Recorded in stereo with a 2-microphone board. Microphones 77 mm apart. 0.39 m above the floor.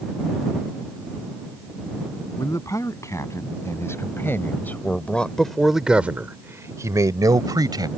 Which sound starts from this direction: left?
A man speaking, at 2.4 s.